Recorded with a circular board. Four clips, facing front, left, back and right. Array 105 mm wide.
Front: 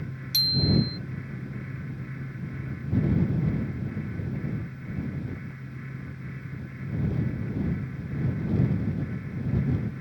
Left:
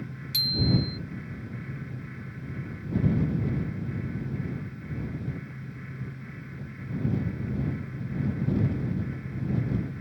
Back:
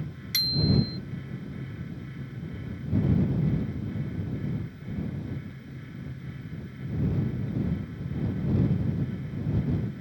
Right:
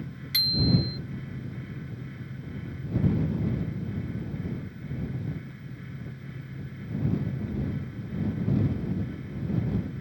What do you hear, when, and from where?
0.3 s a bicycle bell: 135° right